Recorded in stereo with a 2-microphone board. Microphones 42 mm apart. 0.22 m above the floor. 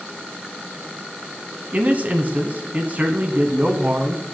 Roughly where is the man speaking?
Right.